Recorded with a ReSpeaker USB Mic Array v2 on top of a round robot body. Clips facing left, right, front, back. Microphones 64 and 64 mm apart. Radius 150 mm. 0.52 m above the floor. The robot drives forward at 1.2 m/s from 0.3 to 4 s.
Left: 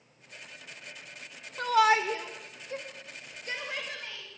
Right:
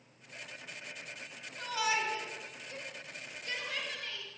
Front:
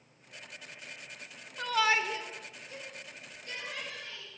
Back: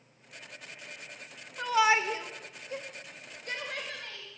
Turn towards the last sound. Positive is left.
turn(degrees=155)